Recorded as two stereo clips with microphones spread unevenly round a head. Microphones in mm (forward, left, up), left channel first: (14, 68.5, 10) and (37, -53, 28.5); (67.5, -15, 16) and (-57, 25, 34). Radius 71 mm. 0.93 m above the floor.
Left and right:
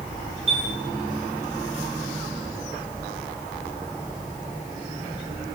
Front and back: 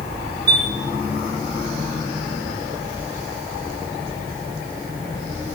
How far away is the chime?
About 9.5 m.